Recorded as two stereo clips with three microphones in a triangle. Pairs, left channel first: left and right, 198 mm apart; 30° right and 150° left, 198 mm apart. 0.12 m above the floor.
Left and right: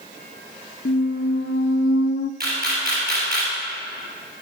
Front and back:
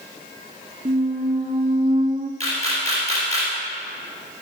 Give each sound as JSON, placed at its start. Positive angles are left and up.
{"t": 0.8, "sound": "a squeak", "azimuth_deg": 100, "distance_m": 0.5}
{"t": 2.4, "sound": "a camera shutter", "azimuth_deg": -100, "distance_m": 2.5}